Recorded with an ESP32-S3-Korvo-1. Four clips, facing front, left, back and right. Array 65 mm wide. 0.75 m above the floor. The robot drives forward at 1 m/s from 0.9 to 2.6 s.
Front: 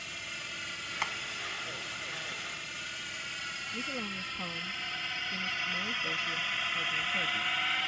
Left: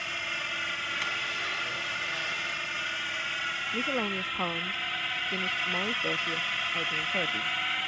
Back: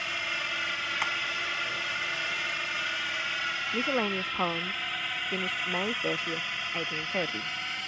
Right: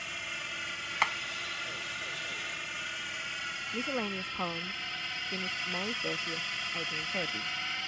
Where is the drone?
150° left; by 7.9 s 50° left.